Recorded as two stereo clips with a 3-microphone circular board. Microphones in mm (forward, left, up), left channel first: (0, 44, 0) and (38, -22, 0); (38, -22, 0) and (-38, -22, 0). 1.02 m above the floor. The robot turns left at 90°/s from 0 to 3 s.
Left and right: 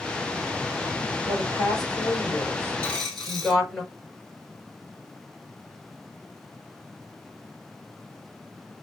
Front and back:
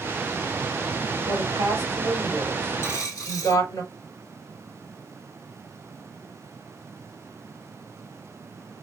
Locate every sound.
1.3 s a woman speaking: 170° right, 3.5 m; by 3.8 s 35° left, 3.5 m
2.8 s a dropped coin: 50° left, 3.5 m; by 3.6 s 35° left, 3.5 m